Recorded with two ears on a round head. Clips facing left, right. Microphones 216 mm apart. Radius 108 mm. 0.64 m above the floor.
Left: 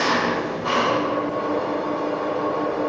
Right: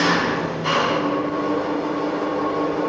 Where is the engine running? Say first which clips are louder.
Right 2 dB; 40° right (ahead or behind), 5.5 m.